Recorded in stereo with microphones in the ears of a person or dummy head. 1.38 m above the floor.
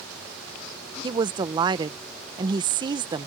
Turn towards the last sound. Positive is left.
turn(degrees=-20)  # may be behind; listen again after turning